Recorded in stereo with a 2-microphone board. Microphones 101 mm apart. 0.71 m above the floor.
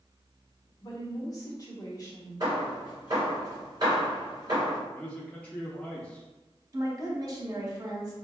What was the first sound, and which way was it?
A woman speaking, 35° left (ahead or behind).